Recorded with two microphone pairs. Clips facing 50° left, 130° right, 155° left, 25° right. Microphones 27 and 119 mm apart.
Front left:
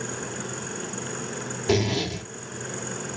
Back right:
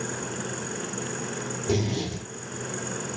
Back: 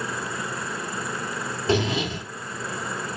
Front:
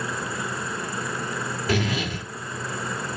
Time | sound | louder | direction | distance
1.7 | a zipper | front left 4 dB, back 3 dB | 95° left | 1.9 m